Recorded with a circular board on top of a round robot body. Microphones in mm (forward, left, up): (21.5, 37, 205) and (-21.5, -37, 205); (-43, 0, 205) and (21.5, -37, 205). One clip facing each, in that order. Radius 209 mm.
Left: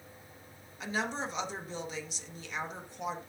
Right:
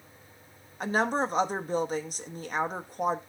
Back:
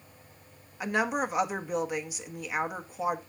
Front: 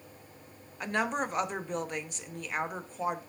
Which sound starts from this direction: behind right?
A woman speaking, at 0.8 s.